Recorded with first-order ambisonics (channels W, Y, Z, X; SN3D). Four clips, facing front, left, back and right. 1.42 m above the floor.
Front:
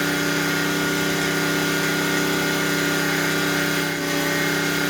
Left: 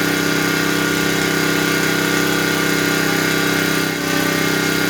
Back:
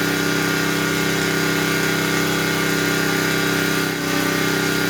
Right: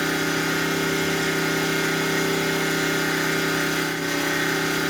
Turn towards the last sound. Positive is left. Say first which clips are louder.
# left 6 dB, back 2 dB
turn(degrees=100)